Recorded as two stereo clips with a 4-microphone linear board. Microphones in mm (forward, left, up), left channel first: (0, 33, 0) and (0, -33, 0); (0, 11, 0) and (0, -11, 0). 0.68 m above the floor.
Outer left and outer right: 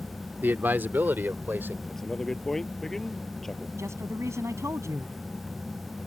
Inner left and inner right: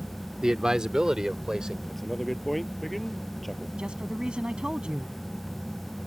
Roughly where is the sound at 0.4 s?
Right.